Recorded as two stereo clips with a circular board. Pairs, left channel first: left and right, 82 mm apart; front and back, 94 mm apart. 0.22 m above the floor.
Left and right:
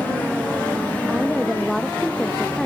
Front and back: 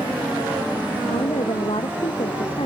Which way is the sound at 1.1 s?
Straight ahead.